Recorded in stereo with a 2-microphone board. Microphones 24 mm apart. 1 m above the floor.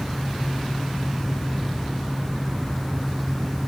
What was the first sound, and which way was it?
Only background noise.